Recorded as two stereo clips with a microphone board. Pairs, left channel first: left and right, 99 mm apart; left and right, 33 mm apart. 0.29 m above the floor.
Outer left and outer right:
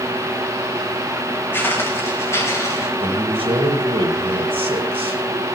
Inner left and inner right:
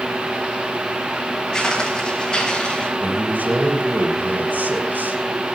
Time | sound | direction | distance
1.5 | footsteps | 20° left (ahead or behind) | 6 m
3.0 | a man speaking | 75° right (ahead or behind) | 6 m